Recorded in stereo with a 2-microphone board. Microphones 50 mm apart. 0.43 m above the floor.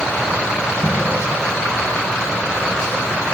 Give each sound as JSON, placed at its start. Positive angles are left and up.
{"t": 0.8, "sound": "an explosion", "side_deg": 30, "distance_m": 2.5}